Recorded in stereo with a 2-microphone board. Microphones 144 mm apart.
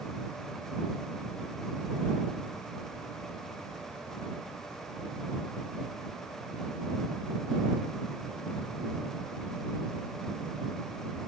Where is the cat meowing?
I don't hear a cat meowing.